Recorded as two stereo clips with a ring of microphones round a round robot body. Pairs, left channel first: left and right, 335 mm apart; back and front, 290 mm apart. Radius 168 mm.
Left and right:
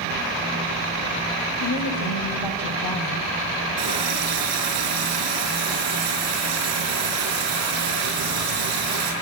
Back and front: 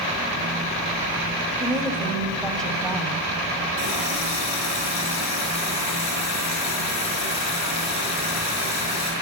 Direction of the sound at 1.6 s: 100° left.